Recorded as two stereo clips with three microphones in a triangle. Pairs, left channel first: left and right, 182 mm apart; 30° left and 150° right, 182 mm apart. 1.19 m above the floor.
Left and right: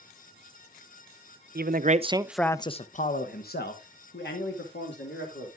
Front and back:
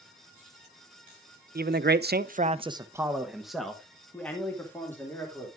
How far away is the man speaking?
About 0.9 m.